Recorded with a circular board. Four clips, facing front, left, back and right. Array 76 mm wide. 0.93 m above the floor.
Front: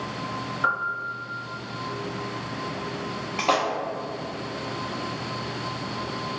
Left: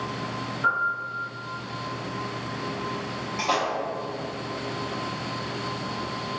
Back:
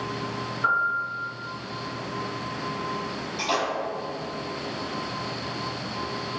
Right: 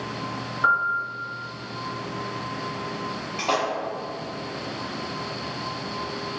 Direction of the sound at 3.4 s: 15° right.